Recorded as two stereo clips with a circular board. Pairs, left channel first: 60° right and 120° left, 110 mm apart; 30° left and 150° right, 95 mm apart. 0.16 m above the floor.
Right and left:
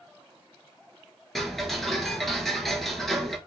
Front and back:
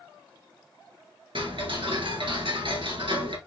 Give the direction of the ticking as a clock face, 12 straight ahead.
5 o'clock.